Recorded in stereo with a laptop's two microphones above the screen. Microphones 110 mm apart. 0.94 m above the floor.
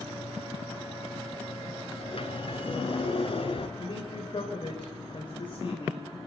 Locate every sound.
2.0 s a sliding door: 55° left (ahead or behind), 3 m
3.8 s a man speaking: 50° left (ahead or behind), 3 m